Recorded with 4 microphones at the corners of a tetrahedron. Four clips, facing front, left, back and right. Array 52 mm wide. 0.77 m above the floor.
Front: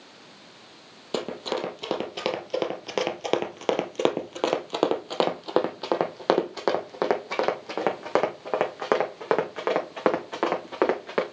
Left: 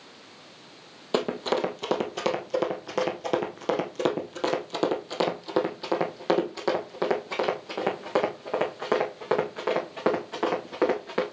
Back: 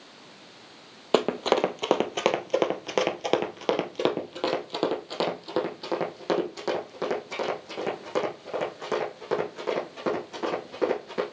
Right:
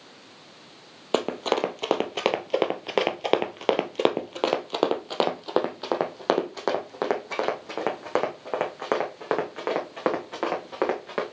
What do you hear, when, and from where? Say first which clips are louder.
1.1 s running footsteps: right 1 dB, back 6 dB; 140° right, 1.5 m; by 11.2 s 20° right, 4.5 m